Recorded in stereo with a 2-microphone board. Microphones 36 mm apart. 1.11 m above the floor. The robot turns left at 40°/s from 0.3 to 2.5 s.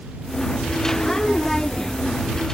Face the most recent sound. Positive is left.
No sound to turn to.